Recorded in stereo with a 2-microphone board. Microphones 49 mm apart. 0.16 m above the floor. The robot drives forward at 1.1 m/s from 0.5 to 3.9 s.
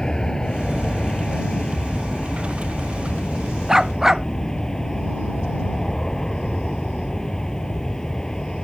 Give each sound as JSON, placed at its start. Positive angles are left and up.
{"t": 0.0, "sound": "an aircraft", "side_deg": 15}
{"t": 3.7, "sound": "a dog barking", "side_deg": -10}